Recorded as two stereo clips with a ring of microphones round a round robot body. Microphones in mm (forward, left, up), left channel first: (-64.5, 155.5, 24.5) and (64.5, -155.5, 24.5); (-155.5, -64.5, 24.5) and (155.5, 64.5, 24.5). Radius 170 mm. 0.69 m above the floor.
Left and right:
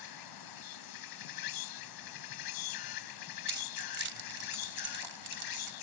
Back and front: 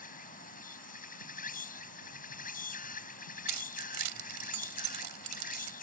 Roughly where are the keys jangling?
Ahead.